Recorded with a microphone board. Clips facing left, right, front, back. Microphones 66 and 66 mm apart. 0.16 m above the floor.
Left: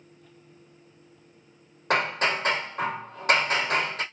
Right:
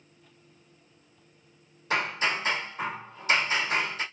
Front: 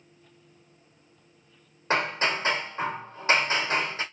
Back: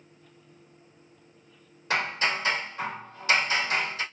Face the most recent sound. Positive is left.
turn(degrees=60)